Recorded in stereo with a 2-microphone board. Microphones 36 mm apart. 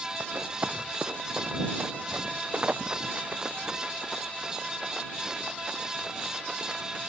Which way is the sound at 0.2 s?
70° right (ahead or behind).